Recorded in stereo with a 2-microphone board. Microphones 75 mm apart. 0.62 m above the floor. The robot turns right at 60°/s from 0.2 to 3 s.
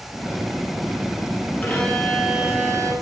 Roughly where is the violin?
Behind left.